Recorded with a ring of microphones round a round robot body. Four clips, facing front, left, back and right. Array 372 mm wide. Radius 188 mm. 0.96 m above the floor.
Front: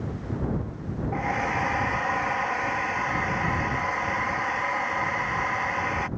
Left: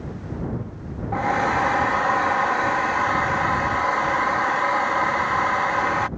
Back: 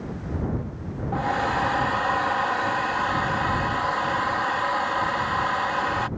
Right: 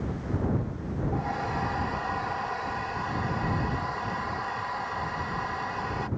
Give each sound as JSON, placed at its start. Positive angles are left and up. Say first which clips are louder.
{"t": 1.1, "sound": "a hair dryer", "louder": "left 12 dB, back 4 dB", "azimuth_deg": 100}